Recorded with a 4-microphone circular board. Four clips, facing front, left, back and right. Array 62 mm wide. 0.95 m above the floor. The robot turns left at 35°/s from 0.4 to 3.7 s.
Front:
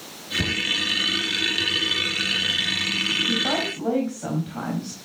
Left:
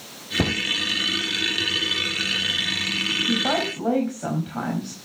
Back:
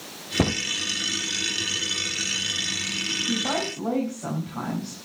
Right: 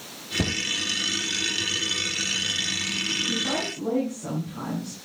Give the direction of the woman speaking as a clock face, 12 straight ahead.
9 o'clock.